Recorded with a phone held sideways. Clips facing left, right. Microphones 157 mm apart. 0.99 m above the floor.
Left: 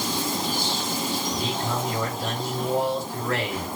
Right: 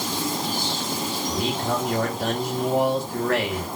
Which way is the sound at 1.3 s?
70° right (ahead or behind).